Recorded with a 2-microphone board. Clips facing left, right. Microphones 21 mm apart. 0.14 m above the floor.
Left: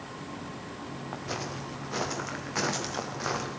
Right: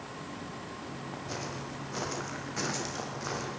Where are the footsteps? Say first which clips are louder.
Left 4 dB; 80° left, 6 m; by 3.5 s 70° left (ahead or behind), 4.5 m.